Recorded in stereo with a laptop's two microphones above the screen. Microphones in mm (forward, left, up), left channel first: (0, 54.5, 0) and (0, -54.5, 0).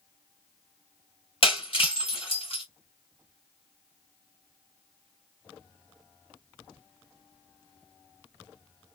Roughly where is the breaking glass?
Left.